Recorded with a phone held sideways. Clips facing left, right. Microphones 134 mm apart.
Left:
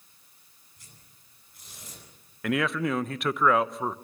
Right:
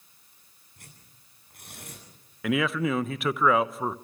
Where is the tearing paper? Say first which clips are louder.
Right 4 dB; 60° right (ahead or behind), 9 m.